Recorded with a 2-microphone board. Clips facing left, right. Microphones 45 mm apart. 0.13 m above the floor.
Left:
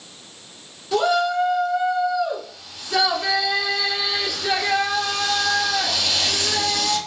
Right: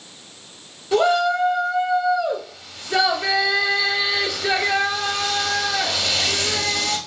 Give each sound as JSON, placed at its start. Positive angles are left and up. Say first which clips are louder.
{"t": 0.9, "sound": "a shout", "louder": "right 2 dB", "side_deg": -10, "distance_m": 1.1}